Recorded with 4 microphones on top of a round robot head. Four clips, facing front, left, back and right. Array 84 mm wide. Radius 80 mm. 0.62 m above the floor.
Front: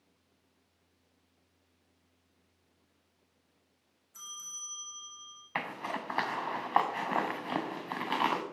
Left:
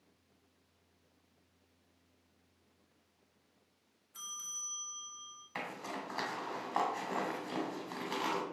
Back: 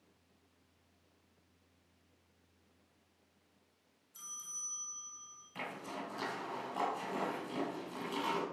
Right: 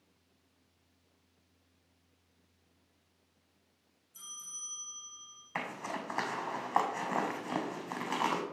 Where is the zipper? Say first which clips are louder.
Right 3 dB, front 7 dB; 20° right, 1.7 m.